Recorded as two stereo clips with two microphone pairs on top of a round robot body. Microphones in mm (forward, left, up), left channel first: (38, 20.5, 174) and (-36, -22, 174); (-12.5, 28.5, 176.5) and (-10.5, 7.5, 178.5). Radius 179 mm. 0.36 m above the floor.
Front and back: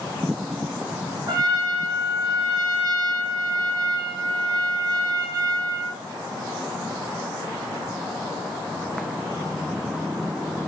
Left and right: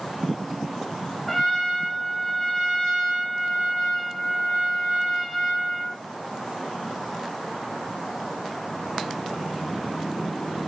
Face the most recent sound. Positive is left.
turn(degrees=170)